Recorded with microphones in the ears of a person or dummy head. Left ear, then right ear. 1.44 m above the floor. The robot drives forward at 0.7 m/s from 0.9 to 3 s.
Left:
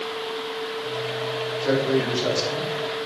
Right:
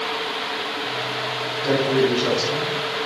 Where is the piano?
I don't hear a piano.